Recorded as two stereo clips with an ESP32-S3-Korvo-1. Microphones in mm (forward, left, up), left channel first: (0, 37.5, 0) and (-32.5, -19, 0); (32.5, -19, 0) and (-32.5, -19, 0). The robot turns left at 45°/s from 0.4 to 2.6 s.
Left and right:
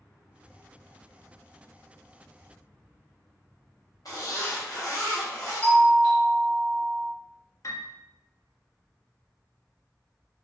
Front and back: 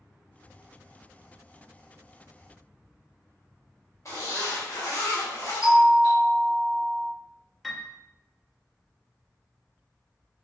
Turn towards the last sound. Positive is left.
turn(degrees=90)